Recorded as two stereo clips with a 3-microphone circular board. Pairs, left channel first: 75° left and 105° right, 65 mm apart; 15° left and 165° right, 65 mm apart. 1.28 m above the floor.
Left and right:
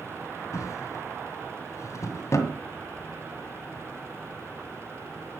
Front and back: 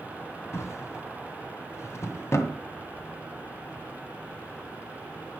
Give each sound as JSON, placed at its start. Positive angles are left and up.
{"t": 0.5, "sound": "a drawer", "azimuth_deg": 50, "distance_m": 2.0}